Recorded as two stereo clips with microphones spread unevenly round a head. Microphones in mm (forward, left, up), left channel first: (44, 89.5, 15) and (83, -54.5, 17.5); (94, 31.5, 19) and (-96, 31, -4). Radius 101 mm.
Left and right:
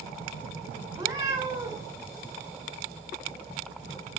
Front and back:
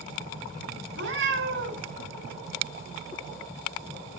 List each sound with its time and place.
1.0 s a cat meowing: 150° right, 2 m